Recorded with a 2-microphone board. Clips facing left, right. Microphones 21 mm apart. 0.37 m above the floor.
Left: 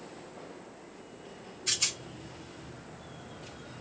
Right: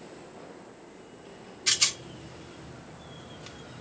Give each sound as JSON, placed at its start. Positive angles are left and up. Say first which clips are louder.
{"t": 1.7, "sound": "a rattle", "louder": "right 5 dB", "side_deg": -50, "distance_m": 0.8}